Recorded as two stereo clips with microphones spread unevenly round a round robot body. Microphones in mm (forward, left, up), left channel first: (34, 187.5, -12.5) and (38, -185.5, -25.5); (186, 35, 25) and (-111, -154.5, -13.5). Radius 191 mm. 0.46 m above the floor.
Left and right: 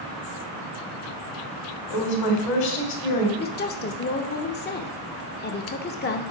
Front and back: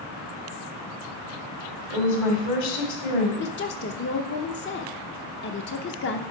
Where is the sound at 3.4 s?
60° left, 0.7 m.